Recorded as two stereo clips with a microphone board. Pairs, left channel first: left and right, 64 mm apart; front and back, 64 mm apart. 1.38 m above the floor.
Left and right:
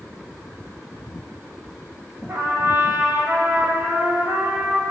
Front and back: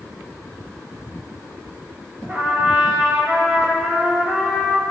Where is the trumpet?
115° right, 1.6 m.